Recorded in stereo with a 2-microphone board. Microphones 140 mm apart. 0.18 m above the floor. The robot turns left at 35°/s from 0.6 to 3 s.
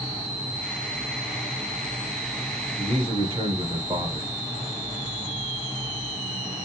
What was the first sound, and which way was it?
A man speaking, 50° right (ahead or behind).